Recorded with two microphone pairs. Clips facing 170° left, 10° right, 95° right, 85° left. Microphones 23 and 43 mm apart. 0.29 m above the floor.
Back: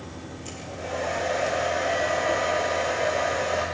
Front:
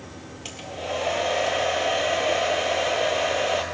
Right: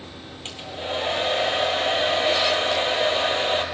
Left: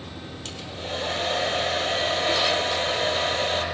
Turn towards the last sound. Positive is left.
turn(degrees=-35)